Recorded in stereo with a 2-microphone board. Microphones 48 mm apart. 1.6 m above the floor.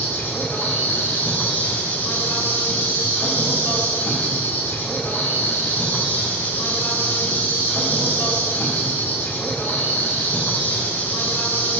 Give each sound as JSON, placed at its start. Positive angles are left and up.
{"t": 0.0, "sound": "an insect", "side_deg": 45, "distance_m": 1.7}